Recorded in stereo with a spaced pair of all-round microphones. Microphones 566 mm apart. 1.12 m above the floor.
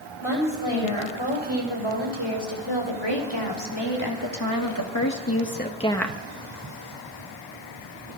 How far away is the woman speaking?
About 7.5 m.